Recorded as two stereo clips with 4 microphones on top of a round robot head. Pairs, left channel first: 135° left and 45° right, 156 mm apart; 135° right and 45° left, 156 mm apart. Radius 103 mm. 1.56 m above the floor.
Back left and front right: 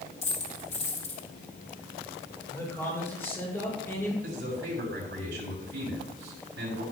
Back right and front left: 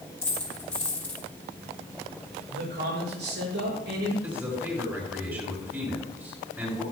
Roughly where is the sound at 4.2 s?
Ahead right.